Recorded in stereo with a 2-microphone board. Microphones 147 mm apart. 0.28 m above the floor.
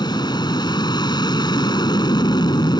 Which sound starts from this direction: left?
An aircraft, at 0.0 s.